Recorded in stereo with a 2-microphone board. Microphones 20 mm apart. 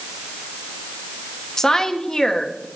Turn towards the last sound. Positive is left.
turn(degrees=20)  # may be behind; listen again after turning